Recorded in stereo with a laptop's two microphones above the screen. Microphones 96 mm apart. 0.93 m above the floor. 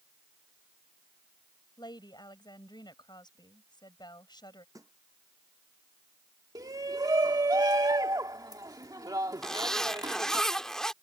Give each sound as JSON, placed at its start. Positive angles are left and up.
{"t": 1.8, "sound": "a woman speaking", "side_deg": 50}
{"t": 4.8, "sound": "a snare drum", "side_deg": -35}
{"t": 6.5, "sound": "a shout", "side_deg": -40}
{"t": 9.4, "sound": "a zipper", "side_deg": 5}